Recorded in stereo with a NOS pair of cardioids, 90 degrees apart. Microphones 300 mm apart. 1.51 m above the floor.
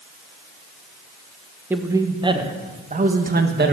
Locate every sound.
1.7 s a man speaking: 5° right, 1.9 m; by 3.7 s 35° right, 2 m